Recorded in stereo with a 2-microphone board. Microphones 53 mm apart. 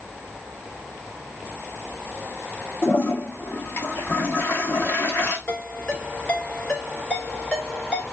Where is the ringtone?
25° left (ahead or behind), 2.5 m.